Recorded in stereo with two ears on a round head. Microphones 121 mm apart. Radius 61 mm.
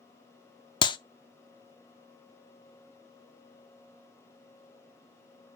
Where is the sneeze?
I don't hear a sneeze.